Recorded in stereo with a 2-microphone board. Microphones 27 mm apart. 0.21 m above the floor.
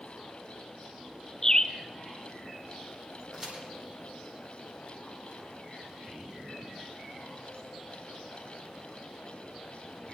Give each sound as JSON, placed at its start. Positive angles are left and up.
{"t": 1.4, "sound": "a bird", "side_deg": 30, "distance_m": 1.0}
{"t": 3.3, "sound": "a crack", "side_deg": -20, "distance_m": 9.5}